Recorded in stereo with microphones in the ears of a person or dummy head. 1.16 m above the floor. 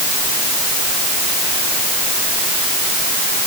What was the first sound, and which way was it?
Only background noise.